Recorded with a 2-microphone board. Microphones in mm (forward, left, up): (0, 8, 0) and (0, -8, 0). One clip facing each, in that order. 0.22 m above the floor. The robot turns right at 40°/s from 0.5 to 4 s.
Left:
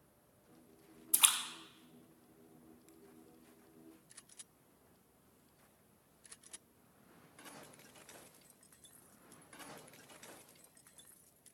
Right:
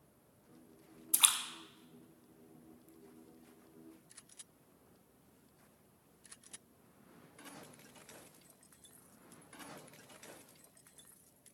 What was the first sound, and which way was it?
A splash, 20° right (ahead or behind).